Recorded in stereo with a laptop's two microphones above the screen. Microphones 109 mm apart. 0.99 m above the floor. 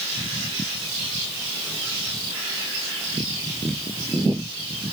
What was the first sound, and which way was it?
Only background noise.